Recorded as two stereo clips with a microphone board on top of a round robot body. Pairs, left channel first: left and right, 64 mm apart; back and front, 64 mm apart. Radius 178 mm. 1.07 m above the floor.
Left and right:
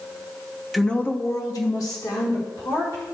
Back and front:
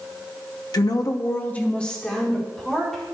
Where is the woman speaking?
Straight behind, 0.9 m; by 3.0 s 90° left, 3 m.